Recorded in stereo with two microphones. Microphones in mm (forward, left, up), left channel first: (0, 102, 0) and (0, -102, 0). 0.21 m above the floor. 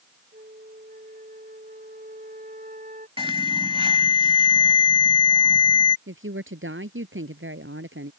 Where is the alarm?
25° right (ahead or behind).